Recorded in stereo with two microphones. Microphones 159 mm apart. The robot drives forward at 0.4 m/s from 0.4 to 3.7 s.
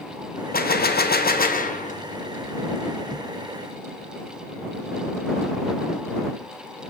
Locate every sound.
0.5 s a gunshot: 70° left (ahead or behind), 0.5 m; by 2.0 s 50° left (ahead or behind), 0.7 m